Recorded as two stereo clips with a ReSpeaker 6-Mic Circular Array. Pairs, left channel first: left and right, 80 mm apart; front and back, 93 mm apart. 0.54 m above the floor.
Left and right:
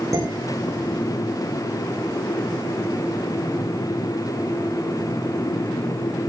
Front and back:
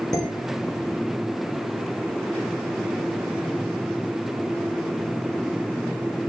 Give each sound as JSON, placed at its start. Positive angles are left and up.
{"t": 0.1, "sound": "dishes clattering", "azimuth_deg": -45, "distance_m": 6.5}